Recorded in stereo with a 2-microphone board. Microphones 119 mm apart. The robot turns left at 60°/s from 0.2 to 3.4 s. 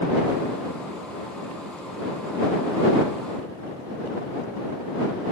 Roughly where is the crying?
No crying in this recording.